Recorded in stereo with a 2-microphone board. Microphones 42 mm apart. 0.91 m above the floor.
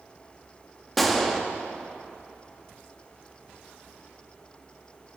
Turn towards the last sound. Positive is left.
turn(degrees=5)  # may be behind; listen again after turning